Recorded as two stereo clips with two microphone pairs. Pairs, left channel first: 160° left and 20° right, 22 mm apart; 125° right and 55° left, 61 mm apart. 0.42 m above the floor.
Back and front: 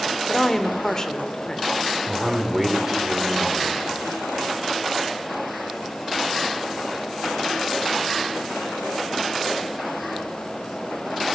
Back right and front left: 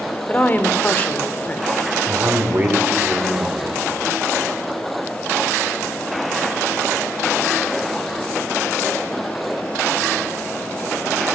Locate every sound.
0.3 s a woman speaking: 160° right, 0.9 m
2.1 s a man speaking: 35° left, 1.5 m